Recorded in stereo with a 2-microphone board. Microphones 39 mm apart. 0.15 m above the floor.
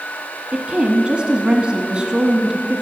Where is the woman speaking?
25° right (ahead or behind), 1.2 m.